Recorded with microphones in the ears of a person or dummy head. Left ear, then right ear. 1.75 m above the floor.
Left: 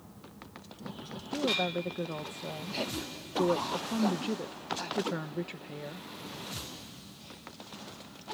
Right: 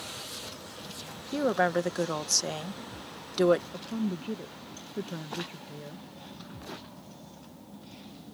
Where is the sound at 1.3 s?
60° right (ahead or behind).